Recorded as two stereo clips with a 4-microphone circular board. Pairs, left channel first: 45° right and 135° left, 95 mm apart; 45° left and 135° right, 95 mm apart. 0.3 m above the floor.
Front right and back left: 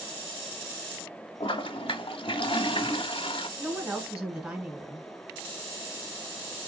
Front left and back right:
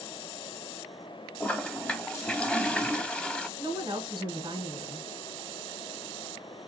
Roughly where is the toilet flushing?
Ahead right.